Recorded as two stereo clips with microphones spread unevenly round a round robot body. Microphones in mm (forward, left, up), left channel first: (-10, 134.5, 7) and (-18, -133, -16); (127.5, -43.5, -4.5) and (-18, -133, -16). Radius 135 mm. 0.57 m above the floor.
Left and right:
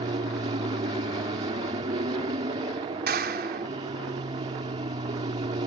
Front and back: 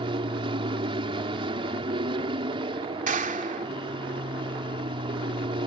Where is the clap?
130° right.